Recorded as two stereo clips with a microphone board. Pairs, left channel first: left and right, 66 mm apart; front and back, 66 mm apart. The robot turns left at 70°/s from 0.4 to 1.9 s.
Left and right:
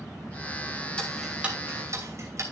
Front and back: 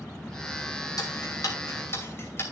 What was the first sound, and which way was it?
Ticking, 15° left.